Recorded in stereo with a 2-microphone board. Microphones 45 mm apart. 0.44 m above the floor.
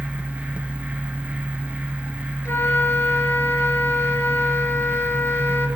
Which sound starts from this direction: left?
A flute, at 2.5 s.